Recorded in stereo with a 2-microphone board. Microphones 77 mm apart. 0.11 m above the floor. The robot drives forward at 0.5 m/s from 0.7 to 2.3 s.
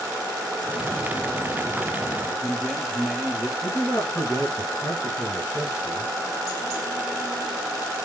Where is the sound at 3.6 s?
45° left (ahead or behind), 1.9 m.